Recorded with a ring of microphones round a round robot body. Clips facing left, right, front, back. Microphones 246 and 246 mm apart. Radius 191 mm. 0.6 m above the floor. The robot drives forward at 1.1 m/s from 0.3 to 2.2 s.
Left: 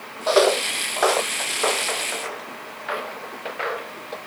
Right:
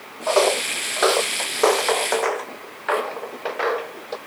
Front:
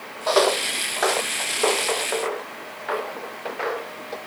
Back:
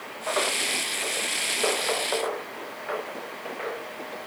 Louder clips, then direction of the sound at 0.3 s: Left 1 dB, front 10 dB; 30° left.